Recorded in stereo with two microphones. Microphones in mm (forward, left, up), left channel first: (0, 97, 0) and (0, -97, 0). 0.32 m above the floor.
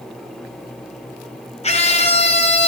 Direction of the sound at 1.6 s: 35° left (ahead or behind).